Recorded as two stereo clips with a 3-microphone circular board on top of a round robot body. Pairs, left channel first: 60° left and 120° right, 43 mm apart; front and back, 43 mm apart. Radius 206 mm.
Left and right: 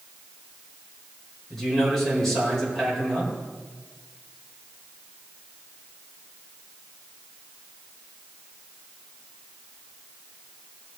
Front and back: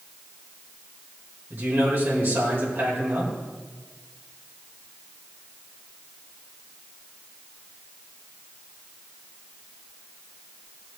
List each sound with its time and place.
1.5 s a man speaking: 140° left, 4.5 m